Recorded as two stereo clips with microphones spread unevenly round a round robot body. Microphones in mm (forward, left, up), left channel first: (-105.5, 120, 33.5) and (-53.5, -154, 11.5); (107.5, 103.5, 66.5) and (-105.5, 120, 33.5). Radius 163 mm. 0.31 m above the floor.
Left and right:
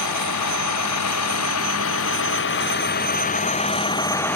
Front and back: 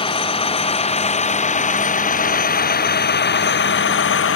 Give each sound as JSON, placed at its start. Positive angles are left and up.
{"t": 0.0, "sound": "a vehicle", "azimuth_deg": 60}